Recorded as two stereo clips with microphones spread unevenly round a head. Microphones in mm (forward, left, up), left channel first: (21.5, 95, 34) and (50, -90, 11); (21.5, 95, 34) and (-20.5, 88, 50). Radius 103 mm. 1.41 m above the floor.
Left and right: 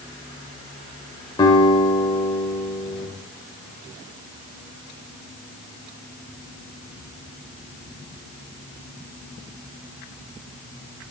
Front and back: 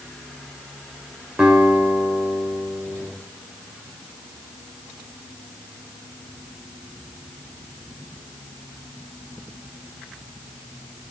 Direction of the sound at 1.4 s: 160° left.